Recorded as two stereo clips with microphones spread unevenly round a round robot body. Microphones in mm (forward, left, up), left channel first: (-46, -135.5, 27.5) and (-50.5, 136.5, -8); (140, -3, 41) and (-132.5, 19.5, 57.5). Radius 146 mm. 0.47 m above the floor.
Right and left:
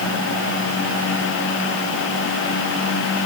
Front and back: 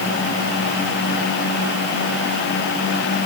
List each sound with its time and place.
Only background noise.